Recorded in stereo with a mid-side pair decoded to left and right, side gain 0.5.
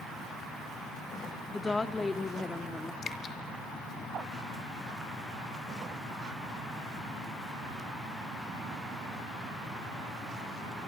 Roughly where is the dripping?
Ahead left.